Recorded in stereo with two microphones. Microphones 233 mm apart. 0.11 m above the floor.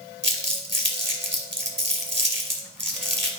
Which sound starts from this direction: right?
Crumpling, at 0.2 s.